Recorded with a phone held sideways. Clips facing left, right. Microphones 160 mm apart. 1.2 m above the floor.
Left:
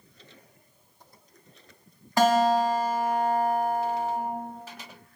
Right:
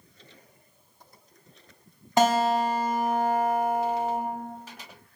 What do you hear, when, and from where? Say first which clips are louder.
2.2 s a guitar: left 1 dB; 20° right (ahead or behind), 0.6 m